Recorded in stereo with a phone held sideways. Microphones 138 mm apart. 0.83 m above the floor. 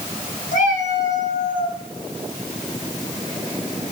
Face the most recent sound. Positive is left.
turn(degrees=75)  # may be behind; listen again after turning